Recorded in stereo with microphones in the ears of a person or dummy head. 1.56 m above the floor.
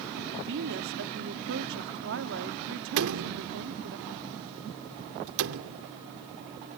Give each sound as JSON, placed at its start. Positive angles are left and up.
{"t": 0.4, "sound": "a woman speaking", "side_deg": -75}
{"t": 3.0, "sound": "a door slam", "side_deg": -80}